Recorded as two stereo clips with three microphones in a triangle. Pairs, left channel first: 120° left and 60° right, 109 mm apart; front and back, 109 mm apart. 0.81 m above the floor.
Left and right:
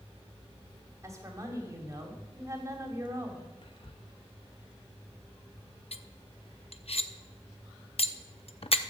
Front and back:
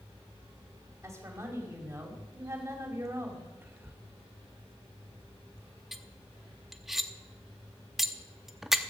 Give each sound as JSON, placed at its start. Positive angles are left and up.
{"t": 1.0, "sound": "a woman speaking", "azimuth_deg": -120, "distance_m": 2.5}
{"t": 3.6, "sound": "whispering", "azimuth_deg": 115, "distance_m": 0.6}
{"t": 5.9, "sound": "cutlery clinking", "azimuth_deg": 90, "distance_m": 0.6}